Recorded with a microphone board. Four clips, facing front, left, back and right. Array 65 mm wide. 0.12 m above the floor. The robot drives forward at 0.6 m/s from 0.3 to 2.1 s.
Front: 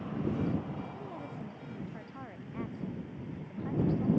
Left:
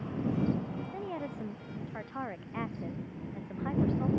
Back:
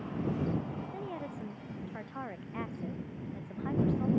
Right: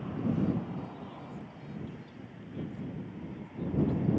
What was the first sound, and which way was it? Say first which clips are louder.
A woman speaking: left 6 dB, back 3 dB; 110° left.